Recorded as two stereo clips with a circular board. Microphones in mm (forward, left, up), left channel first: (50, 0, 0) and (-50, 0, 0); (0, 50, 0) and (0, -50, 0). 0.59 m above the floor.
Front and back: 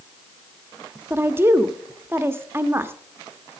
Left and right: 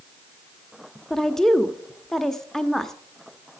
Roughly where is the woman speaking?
Behind.